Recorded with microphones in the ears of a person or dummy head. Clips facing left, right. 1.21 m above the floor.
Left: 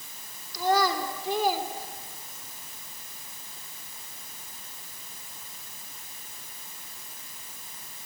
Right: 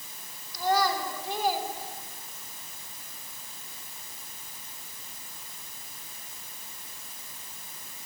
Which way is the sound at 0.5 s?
70° left (ahead or behind).